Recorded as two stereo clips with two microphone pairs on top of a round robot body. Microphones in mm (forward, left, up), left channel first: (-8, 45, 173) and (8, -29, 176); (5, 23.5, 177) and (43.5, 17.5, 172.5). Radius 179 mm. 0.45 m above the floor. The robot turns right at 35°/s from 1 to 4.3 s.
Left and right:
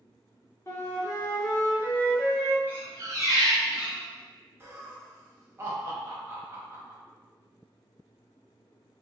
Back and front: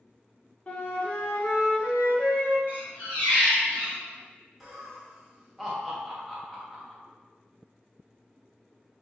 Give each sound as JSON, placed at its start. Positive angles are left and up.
{"t": 0.7, "sound": "a flute", "azimuth_deg": 130, "distance_m": 1.1}
{"t": 2.7, "sound": "a squeak", "azimuth_deg": -150, "distance_m": 1.4}
{"t": 4.6, "sound": "laughter", "azimuth_deg": -75, "distance_m": 1.1}